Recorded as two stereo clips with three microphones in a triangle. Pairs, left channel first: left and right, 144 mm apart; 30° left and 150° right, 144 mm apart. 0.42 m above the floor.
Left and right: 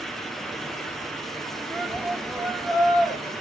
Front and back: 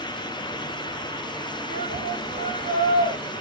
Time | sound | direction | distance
1.7 | a shout | 170° left | 6.5 m